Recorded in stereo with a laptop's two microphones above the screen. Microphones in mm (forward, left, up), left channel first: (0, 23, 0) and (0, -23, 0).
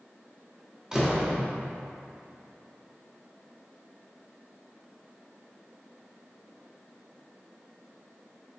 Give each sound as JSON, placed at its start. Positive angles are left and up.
{"t": 0.9, "sound": "a door slam", "side_deg": -15, "distance_m": 0.8}